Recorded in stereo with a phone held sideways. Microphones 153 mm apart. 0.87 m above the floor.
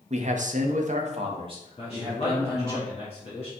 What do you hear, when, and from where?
0.1 s a man speaking: 50° right (ahead or behind), 0.6 m; by 2.8 s 20° right (ahead or behind), 1.2 m
1.8 s a man speaking: 45° left (ahead or behind), 1.4 m